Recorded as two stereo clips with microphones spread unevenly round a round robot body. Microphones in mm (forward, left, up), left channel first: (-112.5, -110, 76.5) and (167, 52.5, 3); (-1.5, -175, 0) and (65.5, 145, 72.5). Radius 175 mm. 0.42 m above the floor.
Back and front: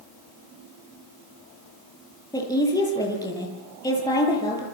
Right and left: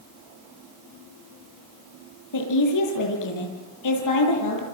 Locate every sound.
2.3 s a woman speaking: 70° right, 10 m